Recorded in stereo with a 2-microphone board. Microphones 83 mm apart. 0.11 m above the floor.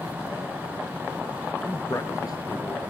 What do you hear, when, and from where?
1.6 s a man speaking: 20° left (ahead or behind), 1.1 m; by 2.8 s 60° left (ahead or behind), 2 m